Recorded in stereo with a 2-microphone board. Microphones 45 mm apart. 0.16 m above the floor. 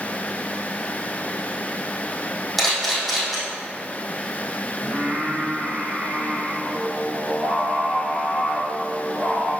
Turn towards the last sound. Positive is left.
turn(degrees=-50)  # may be behind; listen again after turning